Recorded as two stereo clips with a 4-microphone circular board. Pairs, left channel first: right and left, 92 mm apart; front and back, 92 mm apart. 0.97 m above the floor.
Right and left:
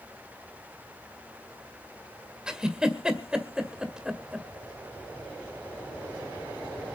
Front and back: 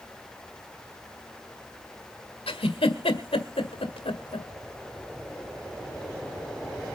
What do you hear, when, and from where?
2.5 s a giggle: 10° left, 1.8 m